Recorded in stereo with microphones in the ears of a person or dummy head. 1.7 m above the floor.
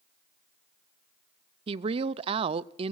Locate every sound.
1.7 s a woman speaking: 30° right (ahead or behind), 0.6 m